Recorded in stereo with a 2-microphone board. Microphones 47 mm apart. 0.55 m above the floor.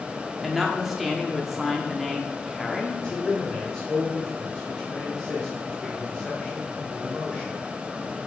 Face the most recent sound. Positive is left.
turn(degrees=15)  # may be behind; listen again after turning